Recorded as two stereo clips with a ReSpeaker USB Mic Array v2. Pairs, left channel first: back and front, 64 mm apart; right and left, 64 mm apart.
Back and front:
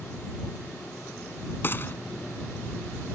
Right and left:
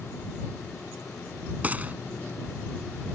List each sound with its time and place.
1.6 s a gunshot: 145° left